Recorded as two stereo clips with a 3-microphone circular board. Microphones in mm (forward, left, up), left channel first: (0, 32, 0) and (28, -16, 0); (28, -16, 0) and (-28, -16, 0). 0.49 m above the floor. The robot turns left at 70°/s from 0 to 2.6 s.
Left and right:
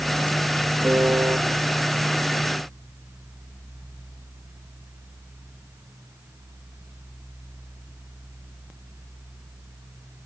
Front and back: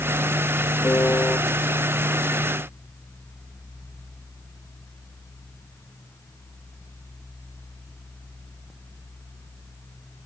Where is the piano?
25° right, 0.5 m; by 1.4 s 60° right, 0.5 m.